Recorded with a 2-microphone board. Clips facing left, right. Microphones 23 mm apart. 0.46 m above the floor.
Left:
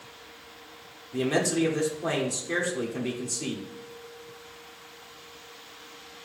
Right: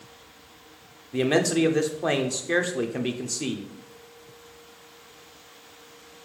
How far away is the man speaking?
About 0.9 m.